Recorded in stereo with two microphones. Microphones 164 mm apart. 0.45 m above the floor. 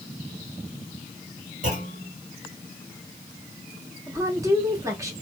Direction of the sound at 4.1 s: 20° right (ahead or behind).